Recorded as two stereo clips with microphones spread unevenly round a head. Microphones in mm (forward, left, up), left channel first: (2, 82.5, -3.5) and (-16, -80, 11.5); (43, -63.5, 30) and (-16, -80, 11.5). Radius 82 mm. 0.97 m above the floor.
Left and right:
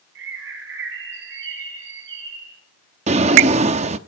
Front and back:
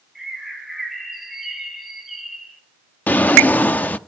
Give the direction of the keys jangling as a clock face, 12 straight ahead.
I don't hear keys jangling.